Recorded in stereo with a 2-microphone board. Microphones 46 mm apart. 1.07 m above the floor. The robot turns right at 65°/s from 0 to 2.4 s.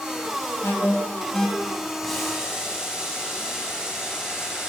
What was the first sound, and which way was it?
An alarm, 65° left (ahead or behind).